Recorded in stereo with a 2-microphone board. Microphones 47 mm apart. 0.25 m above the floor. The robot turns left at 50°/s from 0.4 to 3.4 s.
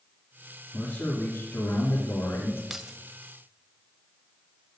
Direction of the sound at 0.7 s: 145° left.